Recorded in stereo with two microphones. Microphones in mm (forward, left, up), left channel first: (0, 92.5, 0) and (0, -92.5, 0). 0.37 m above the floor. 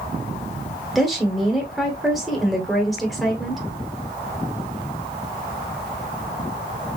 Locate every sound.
0.9 s a woman speaking: centre (ahead or behind), 1.3 m